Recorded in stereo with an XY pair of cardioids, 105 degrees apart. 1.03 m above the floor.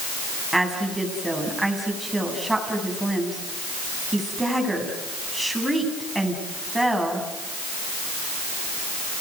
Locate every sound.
0.5 s a woman speaking: 5° right, 7.5 m